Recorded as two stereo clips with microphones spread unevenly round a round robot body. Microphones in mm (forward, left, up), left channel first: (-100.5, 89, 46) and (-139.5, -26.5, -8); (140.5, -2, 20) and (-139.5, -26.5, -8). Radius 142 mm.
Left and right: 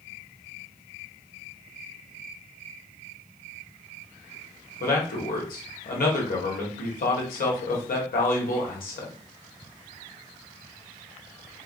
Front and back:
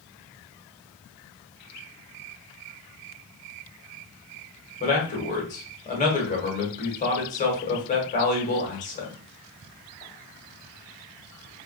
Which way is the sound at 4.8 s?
70° left.